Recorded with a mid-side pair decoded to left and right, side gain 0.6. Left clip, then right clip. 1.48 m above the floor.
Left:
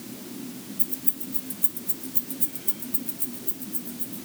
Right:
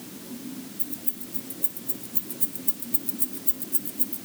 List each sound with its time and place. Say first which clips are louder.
0.8 s keys jangling: left 2 dB; 20° left, 3 m; by 4.3 s 55° right, 1.8 m